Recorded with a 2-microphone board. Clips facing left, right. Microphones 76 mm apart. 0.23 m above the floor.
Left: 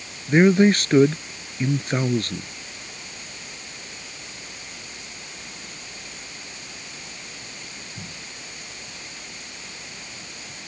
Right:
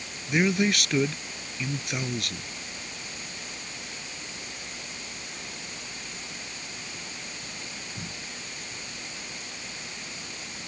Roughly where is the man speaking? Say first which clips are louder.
Left 9 dB; left.